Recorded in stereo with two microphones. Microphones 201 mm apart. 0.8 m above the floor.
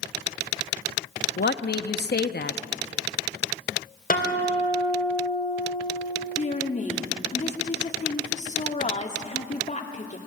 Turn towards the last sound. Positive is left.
turn(degrees=35)  # may be behind; listen again after turning